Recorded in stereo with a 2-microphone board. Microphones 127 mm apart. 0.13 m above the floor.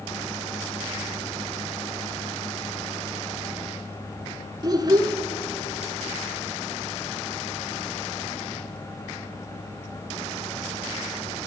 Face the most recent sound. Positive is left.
turn(degrees=-35)  # may be behind; listen again after turning